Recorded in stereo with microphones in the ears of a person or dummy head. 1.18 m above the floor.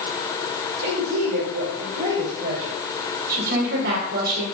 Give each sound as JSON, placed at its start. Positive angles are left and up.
{"t": 0.8, "sound": "a woman speaking", "side_deg": -55, "distance_m": 4.0}
{"t": 3.3, "sound": "a woman speaking", "side_deg": -55, "distance_m": 5.0}